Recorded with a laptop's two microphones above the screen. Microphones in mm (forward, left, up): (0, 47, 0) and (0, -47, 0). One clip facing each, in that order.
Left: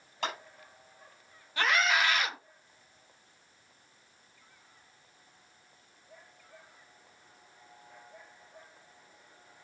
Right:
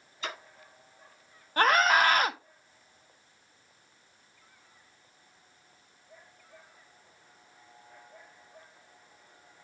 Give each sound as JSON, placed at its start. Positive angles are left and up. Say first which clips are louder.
{"t": 0.2, "sound": "a clap", "louder": "left 3 dB", "side_deg": 80, "distance_m": 5.0}
{"t": 1.6, "sound": "a scream", "louder": "right 5 dB", "side_deg": -45, "distance_m": 0.9}